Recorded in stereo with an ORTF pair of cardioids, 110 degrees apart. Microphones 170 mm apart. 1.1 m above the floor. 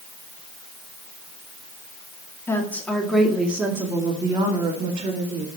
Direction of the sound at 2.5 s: 15° left.